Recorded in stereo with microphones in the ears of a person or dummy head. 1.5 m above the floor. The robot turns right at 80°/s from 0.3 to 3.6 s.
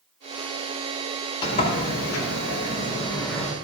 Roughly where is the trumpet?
I don't hear a trumpet.